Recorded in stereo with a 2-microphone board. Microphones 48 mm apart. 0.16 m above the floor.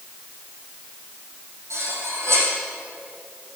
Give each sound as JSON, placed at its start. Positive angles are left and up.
{"t": 1.7, "sound": "cutlery clinking", "side_deg": -70, "distance_m": 4.5}